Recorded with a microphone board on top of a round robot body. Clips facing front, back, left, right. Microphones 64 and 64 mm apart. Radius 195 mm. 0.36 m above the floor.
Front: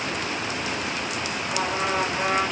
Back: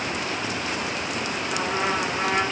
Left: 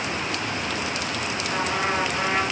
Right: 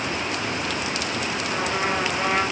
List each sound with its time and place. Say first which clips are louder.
1.5 s a trumpet: even, left 1 dB; 175° right, 6.5 m